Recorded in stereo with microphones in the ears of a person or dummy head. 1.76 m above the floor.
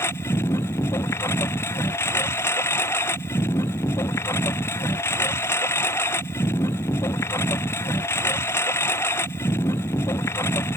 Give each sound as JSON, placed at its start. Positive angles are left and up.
{"t": 0.0, "sound": "a lawn mower", "side_deg": 15}